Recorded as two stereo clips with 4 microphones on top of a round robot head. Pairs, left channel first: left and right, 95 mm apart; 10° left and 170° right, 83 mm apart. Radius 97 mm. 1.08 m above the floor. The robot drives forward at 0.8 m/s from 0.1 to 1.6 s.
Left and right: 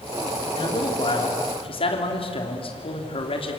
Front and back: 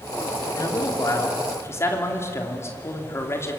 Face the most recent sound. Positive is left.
turn(degrees=70)